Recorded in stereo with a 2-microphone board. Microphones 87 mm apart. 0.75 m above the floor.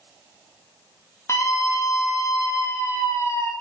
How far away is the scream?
About 0.6 m.